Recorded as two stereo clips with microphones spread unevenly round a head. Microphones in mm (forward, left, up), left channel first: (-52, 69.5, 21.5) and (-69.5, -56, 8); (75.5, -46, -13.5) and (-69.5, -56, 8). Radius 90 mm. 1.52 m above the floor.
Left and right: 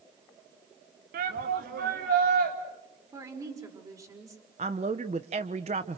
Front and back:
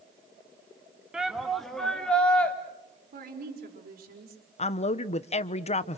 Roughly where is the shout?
Right.